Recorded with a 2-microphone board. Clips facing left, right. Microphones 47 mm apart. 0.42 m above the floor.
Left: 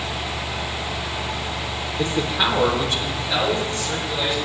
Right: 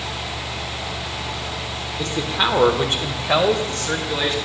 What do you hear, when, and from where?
2.0 s a man speaking: 25° left (ahead or behind), 1.0 m; by 4.4 s 70° right (ahead or behind), 3 m